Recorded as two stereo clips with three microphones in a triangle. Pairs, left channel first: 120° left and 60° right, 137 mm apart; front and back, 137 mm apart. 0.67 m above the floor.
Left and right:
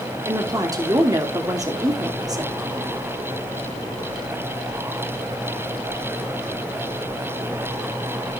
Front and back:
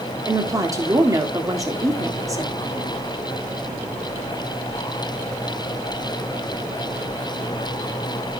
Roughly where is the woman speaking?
Behind right.